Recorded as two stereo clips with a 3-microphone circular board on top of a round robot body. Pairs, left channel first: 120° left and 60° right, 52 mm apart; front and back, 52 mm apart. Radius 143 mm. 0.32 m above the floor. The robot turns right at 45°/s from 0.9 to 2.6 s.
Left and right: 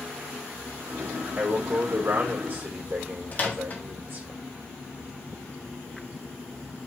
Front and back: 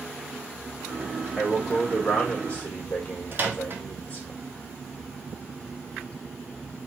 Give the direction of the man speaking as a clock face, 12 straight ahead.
4 o'clock.